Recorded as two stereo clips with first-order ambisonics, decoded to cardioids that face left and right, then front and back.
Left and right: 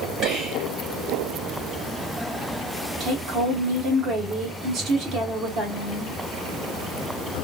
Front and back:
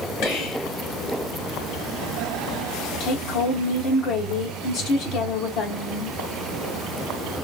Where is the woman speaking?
45° right, 1.2 m.